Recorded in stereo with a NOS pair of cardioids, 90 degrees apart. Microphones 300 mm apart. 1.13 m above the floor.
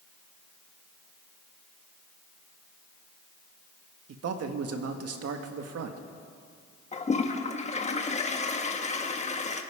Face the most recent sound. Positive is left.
turn(degrees=25)